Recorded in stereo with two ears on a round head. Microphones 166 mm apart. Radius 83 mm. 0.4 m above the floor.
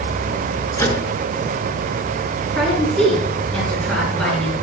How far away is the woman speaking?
About 5.5 m.